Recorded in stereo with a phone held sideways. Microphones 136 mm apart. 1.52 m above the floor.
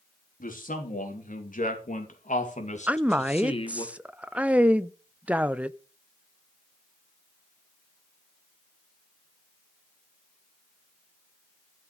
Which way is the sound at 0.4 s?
90° left.